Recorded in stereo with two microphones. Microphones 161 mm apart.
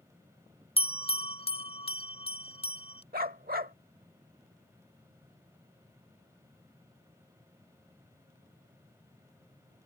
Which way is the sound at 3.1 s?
70° right (ahead or behind).